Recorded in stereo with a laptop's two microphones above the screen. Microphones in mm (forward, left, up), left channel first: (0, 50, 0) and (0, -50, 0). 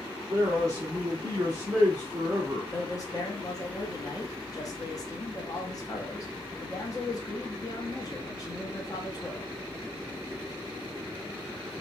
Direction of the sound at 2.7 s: 35° left (ahead or behind).